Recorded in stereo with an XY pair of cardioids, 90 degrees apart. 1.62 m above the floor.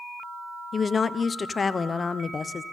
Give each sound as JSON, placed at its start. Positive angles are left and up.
{"t": 0.7, "sound": "a woman speaking", "azimuth_deg": 35, "distance_m": 0.8}